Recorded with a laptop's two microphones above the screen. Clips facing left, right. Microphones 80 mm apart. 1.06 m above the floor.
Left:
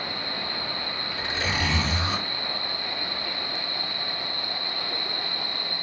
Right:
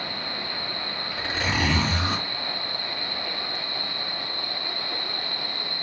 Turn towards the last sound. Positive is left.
turn(degrees=-60)  # may be behind; listen again after turning